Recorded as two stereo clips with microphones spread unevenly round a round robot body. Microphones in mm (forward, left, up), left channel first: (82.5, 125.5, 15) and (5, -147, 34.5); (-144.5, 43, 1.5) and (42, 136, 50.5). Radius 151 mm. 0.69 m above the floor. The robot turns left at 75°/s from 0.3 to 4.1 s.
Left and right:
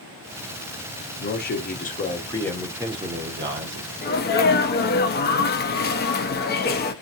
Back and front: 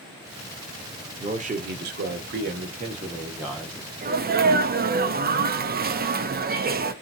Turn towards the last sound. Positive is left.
turn(degrees=60)